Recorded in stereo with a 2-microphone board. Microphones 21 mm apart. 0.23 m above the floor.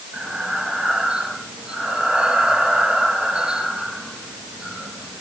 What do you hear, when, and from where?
0.1 s breathing: 50° right (ahead or behind), 4 m